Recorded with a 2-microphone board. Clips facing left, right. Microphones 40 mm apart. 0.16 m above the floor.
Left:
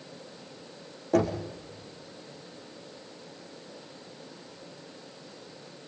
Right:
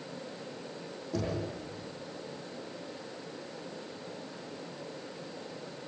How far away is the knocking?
About 5 m.